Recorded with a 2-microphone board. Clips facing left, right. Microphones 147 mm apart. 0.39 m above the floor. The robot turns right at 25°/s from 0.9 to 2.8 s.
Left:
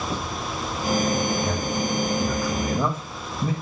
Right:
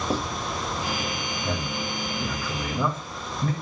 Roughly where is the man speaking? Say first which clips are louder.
Left 5 dB; centre.